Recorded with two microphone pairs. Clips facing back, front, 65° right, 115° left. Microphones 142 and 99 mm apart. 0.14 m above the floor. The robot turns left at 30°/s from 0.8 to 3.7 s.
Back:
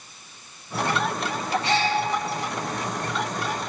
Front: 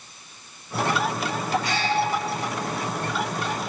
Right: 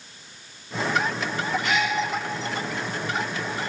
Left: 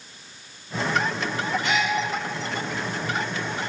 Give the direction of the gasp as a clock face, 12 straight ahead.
5 o'clock.